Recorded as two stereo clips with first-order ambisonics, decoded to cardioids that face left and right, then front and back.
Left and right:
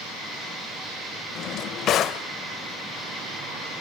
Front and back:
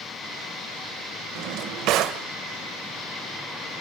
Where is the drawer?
145° left, 0.8 m.